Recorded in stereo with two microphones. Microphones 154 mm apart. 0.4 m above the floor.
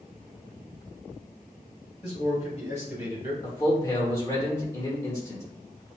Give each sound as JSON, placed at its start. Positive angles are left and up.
{"t": 2.0, "sound": "a man speaking", "side_deg": 45, "distance_m": 1.8}
{"t": 3.4, "sound": "a man speaking", "side_deg": 20, "distance_m": 1.1}